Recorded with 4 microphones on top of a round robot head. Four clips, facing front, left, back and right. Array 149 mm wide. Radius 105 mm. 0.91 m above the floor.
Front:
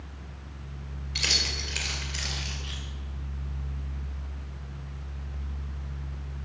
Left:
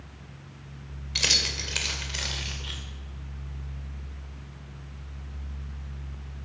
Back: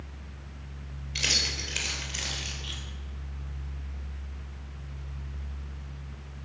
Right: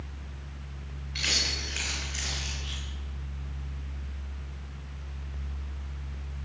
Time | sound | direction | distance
1.1 | keys jangling | 95° left | 3 m